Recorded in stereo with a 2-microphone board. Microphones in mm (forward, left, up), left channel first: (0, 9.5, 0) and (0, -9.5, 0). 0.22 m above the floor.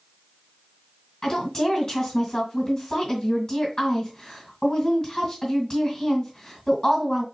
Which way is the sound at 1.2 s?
25° left (ahead or behind).